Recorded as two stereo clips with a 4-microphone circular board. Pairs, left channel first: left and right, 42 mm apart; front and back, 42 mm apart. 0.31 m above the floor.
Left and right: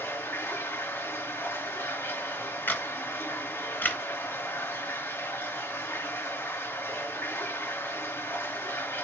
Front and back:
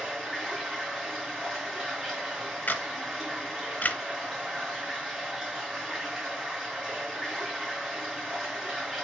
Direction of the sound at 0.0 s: 95° left.